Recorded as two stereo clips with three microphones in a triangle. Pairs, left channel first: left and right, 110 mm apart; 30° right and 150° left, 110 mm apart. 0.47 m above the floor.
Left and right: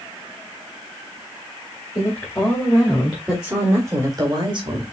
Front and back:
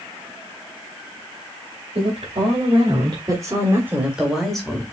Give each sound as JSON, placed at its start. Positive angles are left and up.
{"t": 1.9, "sound": "a woman speaking", "azimuth_deg": 150, "distance_m": 2.5}